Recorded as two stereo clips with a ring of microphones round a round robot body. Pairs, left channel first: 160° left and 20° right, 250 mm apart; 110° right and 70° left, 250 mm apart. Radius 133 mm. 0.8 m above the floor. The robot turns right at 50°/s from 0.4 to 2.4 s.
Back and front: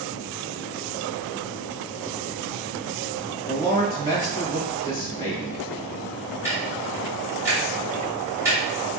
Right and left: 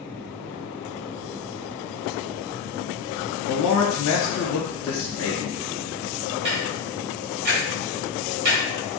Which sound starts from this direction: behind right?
A man speaking, at 3.5 s.